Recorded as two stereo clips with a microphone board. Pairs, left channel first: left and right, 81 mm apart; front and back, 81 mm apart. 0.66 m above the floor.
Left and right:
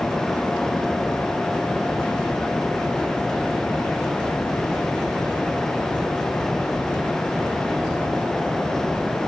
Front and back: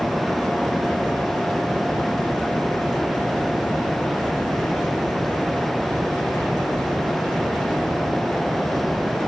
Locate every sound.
Only background noise.